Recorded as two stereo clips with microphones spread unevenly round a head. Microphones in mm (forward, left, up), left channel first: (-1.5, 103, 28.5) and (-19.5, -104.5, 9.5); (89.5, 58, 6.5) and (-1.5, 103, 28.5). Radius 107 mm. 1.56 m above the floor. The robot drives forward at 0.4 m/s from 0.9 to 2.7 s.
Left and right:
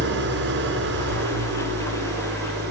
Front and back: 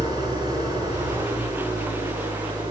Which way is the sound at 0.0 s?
130° right.